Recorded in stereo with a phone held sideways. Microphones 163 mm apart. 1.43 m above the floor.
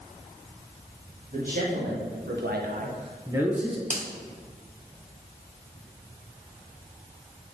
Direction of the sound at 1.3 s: 55° right (ahead or behind).